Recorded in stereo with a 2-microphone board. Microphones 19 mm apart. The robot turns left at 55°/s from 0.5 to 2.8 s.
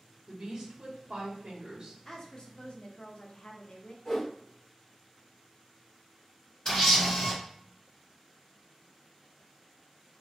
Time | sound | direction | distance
0.3 | a woman speaking | 55° right | 1.0 m
2.0 | a woman speaking | 160° left | 0.6 m
4.0 | a whoosh | 20° left (ahead or behind) | 0.9 m
6.7 | a camera shutter | 30° left (ahead or behind) | 1.3 m